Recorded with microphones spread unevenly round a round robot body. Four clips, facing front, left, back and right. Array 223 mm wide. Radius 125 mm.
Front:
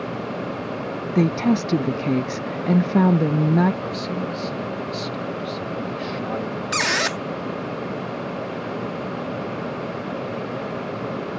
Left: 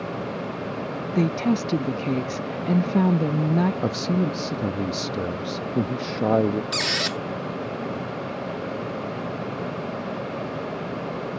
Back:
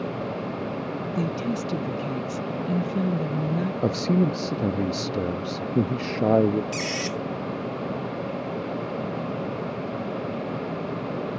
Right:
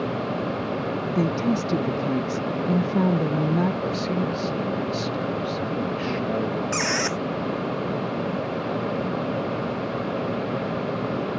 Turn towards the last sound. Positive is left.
turn(degrees=-10)